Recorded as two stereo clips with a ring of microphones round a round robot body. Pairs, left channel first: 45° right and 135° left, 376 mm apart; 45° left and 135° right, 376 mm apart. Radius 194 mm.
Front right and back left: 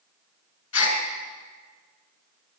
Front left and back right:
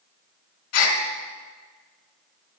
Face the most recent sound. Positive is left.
turn(degrees=15)